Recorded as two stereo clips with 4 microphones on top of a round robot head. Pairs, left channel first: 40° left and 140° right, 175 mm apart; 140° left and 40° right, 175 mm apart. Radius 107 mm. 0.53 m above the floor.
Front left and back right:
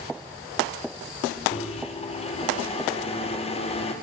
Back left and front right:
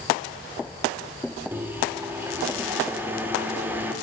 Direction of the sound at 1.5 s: 30° left.